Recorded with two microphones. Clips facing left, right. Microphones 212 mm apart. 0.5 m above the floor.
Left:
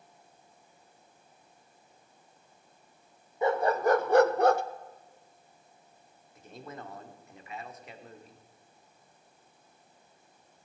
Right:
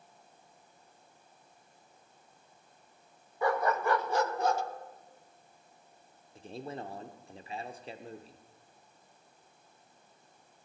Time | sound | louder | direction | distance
3.4 | a dog barking | left 4 dB | 20° left (ahead or behind) | 0.9 m
6.3 | a man speaking | right 4 dB | 30° right (ahead or behind) | 1.2 m